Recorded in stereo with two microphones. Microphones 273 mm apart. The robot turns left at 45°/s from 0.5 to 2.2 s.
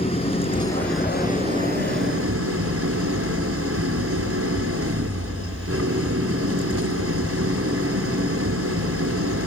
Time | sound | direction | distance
0.0 | an engine running | 20° left | 2.5 m